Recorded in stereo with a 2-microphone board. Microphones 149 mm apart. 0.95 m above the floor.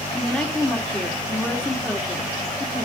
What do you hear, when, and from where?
0.1 s a woman speaking: 5° left (ahead or behind), 2.5 m